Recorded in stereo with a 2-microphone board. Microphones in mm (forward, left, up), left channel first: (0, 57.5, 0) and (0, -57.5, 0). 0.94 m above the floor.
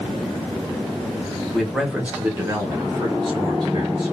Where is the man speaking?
Centre (ahead or behind), 0.8 m; by 4.1 s 40° right (ahead or behind), 1.2 m.